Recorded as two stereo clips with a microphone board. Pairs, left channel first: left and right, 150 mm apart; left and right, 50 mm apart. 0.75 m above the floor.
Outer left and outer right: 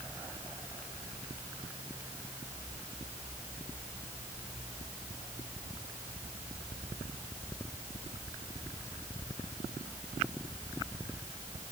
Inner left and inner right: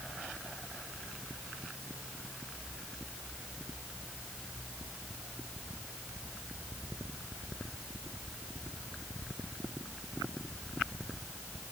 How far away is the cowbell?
No cowbell in this recording.